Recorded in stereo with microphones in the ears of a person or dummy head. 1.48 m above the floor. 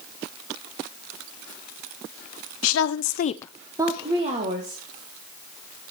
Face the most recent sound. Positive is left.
turn(degrees=-45)  # may be behind; listen again after turning